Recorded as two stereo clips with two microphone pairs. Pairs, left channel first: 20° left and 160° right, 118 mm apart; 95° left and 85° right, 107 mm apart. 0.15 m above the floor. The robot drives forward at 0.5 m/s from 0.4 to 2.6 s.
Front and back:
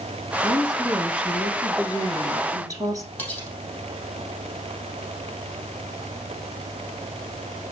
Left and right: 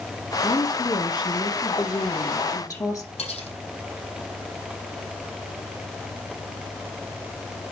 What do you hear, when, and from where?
0.4 s a woman speaking: 105° left, 1.4 m; by 3.1 s 145° left, 1.9 m
3.2 s cutlery clinking: 95° left, 3.5 m